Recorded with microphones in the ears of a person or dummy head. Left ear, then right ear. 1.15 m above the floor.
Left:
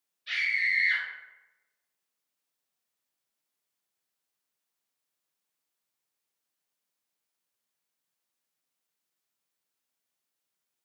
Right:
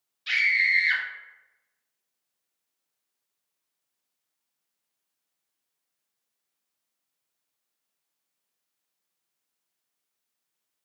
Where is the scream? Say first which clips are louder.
Right 5 dB; 50° right (ahead or behind), 0.6 m.